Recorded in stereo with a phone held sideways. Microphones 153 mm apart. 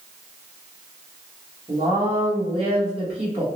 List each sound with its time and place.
1.7 s a woman speaking: 35° right (ahead or behind), 1.3 m